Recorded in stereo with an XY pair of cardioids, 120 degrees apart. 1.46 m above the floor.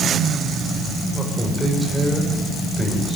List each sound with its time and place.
1.1 s a man speaking: straight ahead, 6 m; by 3.2 s 5° right, 6.5 m